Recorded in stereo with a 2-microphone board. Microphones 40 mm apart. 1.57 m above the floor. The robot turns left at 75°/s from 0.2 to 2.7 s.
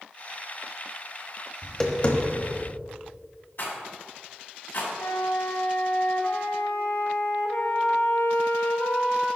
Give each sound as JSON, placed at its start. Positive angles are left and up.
{"t": 1.6, "sound": "tapping", "side_deg": 5, "distance_m": 0.9}
{"t": 3.6, "sound": "a rattle", "side_deg": 50, "distance_m": 1.6}
{"t": 5.0, "sound": "a flute", "side_deg": 80, "distance_m": 0.9}